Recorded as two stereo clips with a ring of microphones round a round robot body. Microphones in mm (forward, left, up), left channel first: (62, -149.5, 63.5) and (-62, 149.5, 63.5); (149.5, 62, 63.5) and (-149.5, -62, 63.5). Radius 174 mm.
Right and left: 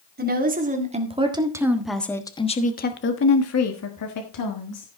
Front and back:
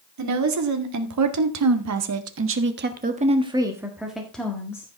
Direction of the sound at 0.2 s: 170° left.